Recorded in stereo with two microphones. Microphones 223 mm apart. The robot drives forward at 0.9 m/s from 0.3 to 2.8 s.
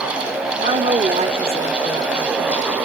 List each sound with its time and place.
0.6 s a woman speaking: 35° right (ahead or behind), 0.8 m; by 2.6 s 15° right (ahead or behind), 1.9 m